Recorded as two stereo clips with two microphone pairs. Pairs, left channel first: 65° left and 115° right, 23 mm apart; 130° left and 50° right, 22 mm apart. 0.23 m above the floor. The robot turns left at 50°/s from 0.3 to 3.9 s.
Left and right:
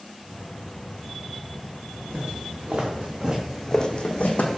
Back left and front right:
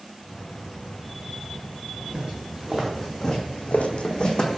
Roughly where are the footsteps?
Right.